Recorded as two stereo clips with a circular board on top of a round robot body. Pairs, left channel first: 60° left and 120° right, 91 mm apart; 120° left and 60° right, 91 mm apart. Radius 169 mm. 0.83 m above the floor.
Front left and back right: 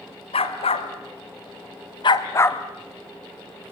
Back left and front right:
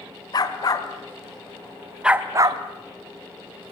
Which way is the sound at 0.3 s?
75° left.